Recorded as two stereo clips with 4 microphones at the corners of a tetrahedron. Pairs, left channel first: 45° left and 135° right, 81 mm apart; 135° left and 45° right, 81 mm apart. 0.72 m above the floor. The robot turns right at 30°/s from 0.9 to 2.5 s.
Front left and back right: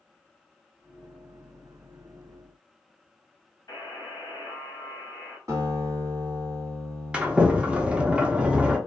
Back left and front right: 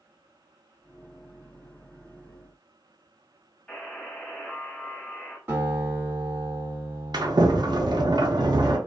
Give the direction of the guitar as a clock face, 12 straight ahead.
3 o'clock.